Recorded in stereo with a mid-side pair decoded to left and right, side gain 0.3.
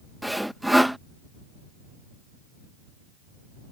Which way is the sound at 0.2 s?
5° right.